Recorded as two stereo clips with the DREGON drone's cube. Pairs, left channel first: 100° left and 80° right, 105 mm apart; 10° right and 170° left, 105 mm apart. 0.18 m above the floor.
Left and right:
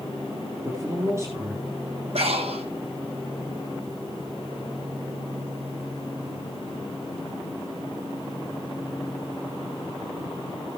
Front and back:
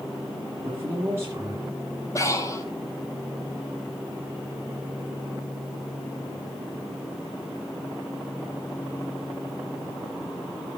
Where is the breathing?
70° right, 1.3 m.